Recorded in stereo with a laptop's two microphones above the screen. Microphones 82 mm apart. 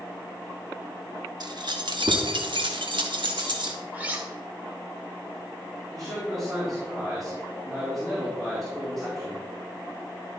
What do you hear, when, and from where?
1.4 s keys jangling: 60° right (ahead or behind), 1.3 m; by 3.8 s 65° right (ahead or behind), 1.4 m
3.9 s cutlery clinking: 20° right (ahead or behind), 1.7 m
5.9 s a man speaking: centre (ahead or behind), 3 m